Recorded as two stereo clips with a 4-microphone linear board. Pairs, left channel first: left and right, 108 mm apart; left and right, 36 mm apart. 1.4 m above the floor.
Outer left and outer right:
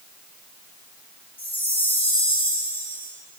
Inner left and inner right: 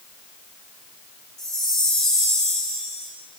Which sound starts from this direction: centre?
A chime, at 1.4 s.